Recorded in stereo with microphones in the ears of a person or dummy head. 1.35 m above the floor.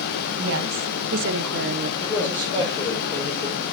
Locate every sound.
0.4 s a woman speaking: 75° right (ahead or behind), 1.5 m; by 1.9 s 55° right (ahead or behind), 0.5 m
2.0 s a man speaking: 15° left (ahead or behind), 5 m